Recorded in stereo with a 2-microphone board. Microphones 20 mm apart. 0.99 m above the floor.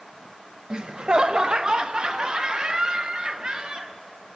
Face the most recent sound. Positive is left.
turn(degrees=-45)  # may be behind; listen again after turning